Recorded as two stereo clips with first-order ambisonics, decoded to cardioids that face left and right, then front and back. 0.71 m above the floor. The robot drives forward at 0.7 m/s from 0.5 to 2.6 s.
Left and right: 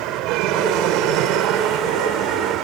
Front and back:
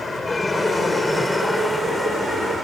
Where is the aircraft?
80° right; by 2.6 s 90° right.